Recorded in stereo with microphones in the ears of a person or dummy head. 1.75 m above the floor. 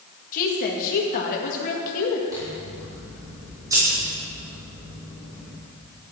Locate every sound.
0.3 s a woman speaking: 45° left (ahead or behind), 1.9 m
2.3 s scissors: 15° right (ahead or behind), 5 m